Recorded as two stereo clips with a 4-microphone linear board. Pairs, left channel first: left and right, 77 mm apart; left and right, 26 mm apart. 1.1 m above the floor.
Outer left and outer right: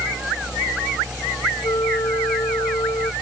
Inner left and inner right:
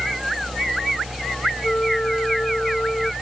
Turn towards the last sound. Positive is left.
turn(degrees=55)  # may be behind; listen again after turning